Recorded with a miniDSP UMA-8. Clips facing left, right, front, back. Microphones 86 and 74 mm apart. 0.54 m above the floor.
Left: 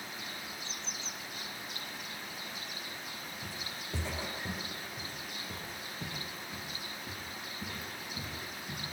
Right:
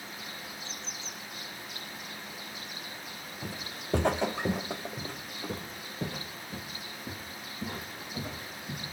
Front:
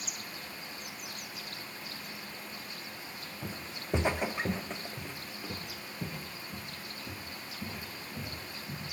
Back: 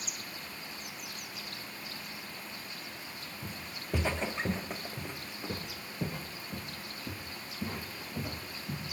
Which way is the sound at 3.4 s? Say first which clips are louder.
Right 3 dB, front 3 dB; 50° right.